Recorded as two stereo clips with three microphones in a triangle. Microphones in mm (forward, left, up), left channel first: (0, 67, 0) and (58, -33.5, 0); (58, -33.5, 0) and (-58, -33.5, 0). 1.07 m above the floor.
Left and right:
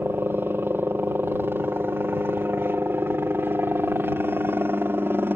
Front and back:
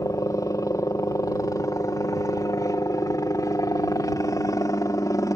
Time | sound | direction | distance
0.0 | a helicopter | 10° right | ?